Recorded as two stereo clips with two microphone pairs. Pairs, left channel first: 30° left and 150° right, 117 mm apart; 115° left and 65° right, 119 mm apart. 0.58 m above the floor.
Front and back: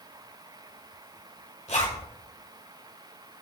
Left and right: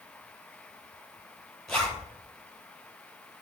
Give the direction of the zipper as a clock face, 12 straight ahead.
11 o'clock.